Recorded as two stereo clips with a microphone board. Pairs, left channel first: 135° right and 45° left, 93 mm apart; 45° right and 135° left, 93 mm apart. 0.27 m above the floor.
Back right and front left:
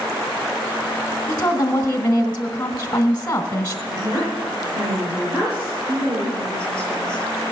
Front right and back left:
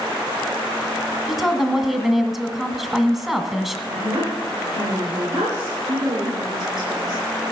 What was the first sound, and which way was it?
A woman speaking, 145° right.